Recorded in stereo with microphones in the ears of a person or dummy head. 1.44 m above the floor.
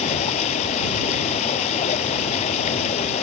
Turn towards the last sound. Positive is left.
turn(degrees=35)  # may be behind; listen again after turning